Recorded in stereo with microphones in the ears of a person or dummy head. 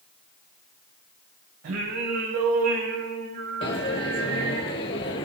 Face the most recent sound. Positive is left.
turn(degrees=25)  # may be behind; listen again after turning